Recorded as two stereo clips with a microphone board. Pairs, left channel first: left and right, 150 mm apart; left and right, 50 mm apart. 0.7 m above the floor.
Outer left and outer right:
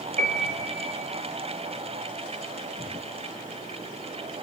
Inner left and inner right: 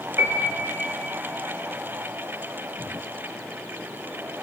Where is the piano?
60° right (ahead or behind), 1.1 m.